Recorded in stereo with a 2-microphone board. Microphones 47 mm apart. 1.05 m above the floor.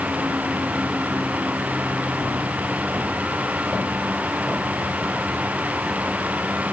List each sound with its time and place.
Only background noise.